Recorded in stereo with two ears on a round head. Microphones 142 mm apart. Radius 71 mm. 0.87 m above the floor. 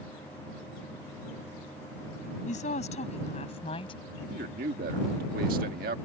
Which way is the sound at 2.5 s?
50° left (ahead or behind).